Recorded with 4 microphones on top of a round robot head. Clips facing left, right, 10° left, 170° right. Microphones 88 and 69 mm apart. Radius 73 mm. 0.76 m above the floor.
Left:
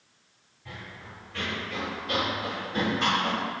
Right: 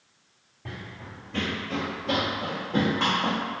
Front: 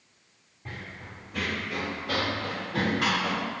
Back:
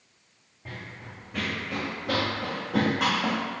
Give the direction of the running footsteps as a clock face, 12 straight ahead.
3 o'clock.